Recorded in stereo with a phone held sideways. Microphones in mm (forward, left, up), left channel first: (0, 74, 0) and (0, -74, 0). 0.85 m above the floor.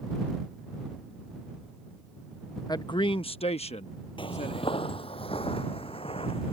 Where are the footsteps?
35° left (ahead or behind); by 6.5 s 40° left (ahead or behind).